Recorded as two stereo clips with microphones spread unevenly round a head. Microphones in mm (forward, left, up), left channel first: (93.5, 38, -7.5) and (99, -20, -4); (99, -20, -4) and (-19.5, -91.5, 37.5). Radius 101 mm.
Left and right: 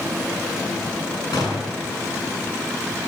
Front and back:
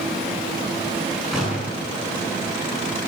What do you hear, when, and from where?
1.3 s a gunshot: 125° left, 7 m